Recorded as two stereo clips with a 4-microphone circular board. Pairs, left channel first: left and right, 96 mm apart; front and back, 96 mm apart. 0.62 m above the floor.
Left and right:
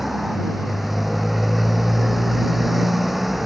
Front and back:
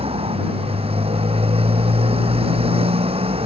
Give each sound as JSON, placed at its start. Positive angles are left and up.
{"t": 0.0, "sound": "a motorcycle", "azimuth_deg": 180}